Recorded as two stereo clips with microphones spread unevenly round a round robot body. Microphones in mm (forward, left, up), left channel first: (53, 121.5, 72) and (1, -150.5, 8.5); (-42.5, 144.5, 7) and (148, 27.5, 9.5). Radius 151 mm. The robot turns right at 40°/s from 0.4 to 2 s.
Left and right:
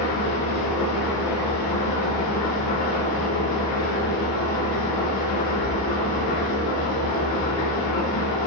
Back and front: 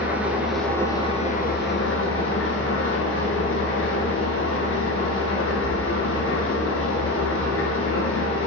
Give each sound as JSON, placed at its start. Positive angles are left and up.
{"t": 0.0, "sound": "an engine running", "azimuth_deg": 55, "distance_m": 2.5}